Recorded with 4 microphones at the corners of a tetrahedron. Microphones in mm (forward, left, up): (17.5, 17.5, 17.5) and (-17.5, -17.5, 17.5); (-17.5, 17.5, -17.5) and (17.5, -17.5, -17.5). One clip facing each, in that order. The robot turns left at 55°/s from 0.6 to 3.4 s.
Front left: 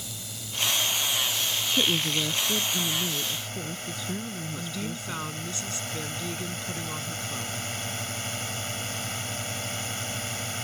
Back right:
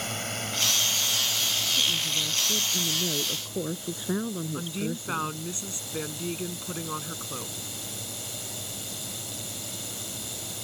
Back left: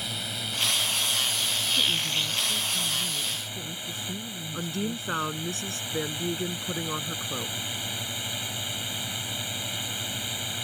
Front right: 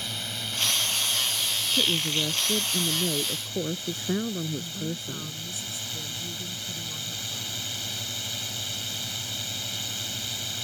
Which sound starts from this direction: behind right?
A drone, at 0.0 s.